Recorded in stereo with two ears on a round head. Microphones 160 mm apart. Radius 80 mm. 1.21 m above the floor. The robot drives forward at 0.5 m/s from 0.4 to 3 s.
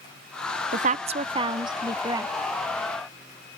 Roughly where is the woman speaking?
Right.